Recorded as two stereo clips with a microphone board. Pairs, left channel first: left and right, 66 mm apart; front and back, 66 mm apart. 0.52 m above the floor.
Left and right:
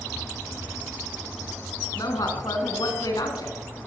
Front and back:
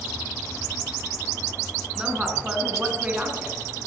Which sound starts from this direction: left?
A woman speaking, at 1.9 s.